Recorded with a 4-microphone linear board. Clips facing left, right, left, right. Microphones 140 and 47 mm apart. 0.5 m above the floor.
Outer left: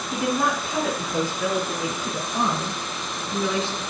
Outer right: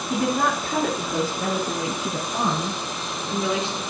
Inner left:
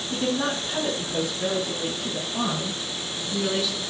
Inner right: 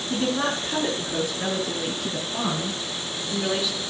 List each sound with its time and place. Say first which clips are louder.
0.1 s a woman speaking: outer right 1 dB, inner right 1 dB; 50° right (ahead or behind), 6 m; by 3.8 s 15° right (ahead or behind), 7.5 m